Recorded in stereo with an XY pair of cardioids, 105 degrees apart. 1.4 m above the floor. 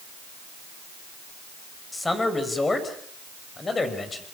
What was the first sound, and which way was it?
A man speaking, 20° left.